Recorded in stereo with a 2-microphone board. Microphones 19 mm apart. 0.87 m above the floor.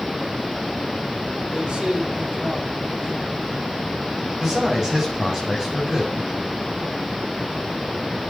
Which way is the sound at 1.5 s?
50° right (ahead or behind).